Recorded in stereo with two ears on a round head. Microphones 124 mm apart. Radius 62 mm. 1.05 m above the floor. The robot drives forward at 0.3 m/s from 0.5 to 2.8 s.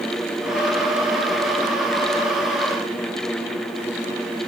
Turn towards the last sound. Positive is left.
No sound to turn to.